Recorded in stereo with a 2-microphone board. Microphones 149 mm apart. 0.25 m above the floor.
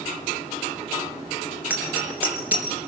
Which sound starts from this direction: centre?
A bicycle bell, at 1.7 s.